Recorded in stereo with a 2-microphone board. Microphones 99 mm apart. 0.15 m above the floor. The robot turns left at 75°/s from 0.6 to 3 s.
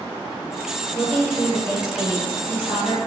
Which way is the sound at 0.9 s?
Straight behind.